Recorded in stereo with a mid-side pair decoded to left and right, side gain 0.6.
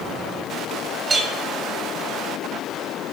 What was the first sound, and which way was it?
A clink, 30° right.